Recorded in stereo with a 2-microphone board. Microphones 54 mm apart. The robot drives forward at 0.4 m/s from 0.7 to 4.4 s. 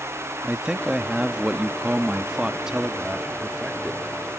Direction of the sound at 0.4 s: 15° right (ahead or behind).